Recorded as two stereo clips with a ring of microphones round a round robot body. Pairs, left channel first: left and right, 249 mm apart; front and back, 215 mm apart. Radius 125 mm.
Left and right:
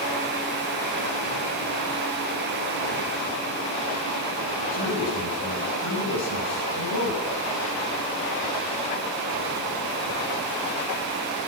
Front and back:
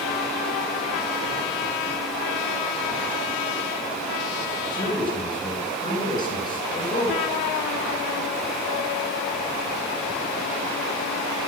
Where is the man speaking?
70° left, 5 m.